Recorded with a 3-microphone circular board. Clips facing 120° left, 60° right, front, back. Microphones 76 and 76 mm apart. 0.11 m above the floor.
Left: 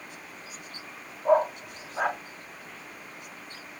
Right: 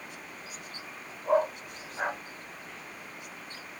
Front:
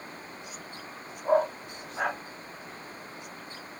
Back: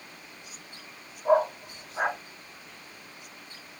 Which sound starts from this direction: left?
A dog barking, at 1.2 s.